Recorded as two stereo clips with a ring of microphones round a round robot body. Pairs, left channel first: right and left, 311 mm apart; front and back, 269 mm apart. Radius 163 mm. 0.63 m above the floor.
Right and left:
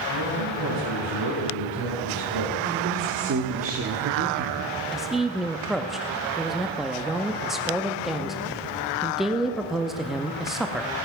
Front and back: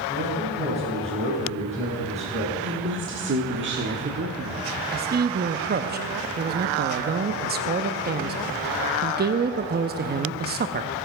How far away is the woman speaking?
About 1.4 m.